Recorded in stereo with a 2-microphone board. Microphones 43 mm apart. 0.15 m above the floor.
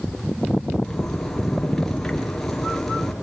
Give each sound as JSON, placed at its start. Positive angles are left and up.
{"t": 0.8, "sound": "a zipper", "side_deg": 5, "distance_m": 2.5}